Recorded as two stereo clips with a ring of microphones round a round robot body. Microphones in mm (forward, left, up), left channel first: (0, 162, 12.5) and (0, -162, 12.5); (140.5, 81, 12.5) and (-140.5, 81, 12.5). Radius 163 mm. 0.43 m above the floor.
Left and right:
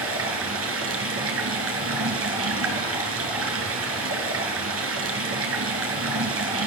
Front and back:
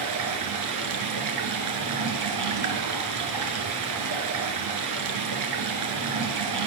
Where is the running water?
140° right, 5.5 m.